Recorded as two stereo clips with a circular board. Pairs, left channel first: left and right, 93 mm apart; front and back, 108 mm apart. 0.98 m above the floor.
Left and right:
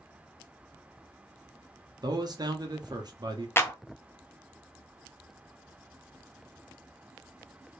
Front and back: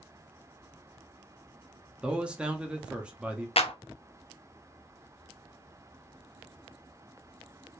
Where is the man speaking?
100° right, 0.8 m.